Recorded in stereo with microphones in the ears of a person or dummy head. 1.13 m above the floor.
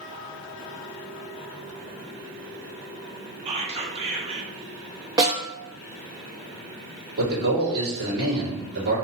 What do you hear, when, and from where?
3.5 s whispering: 25° right (ahead or behind), 0.7 m
5.2 s a snare drum: 25° right (ahead or behind), 0.9 m
7.2 s a man speaking: 60° right (ahead or behind), 1.9 m